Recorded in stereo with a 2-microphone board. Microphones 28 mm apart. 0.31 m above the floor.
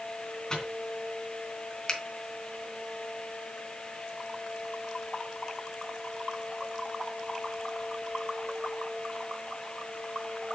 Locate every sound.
0.5 s a microwave: 25° left (ahead or behind), 2.5 m
1.9 s a finger snap: 35° left (ahead or behind), 1.7 m